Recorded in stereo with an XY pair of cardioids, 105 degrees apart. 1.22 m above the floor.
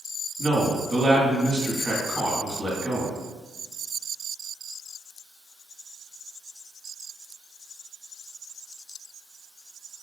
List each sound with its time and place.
0.4 s a man speaking: 25° right, 1.5 m